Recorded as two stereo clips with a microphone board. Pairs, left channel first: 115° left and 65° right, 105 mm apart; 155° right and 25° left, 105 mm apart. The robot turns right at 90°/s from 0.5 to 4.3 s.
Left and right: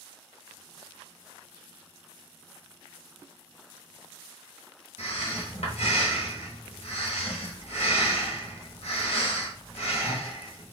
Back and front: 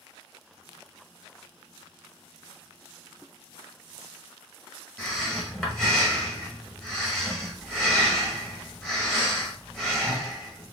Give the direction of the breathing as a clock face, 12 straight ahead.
8 o'clock.